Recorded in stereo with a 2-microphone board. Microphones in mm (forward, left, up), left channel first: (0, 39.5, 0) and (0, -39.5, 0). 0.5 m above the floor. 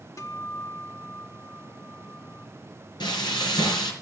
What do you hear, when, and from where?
0.2 s a guitar: 45° left (ahead or behind), 1.3 m
3.0 s frying: 85° left, 4 m